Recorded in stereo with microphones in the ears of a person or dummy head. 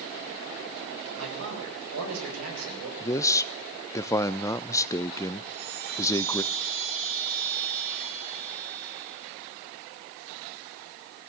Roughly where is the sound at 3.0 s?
Centre.